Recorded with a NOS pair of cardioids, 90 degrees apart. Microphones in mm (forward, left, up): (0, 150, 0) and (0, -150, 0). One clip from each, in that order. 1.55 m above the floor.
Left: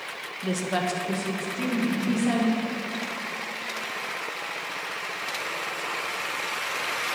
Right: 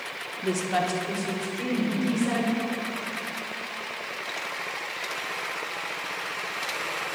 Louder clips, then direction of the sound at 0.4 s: Right 1 dB; 10° right.